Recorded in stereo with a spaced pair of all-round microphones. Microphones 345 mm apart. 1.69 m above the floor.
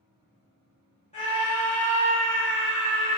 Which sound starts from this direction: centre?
A scream, at 1.1 s.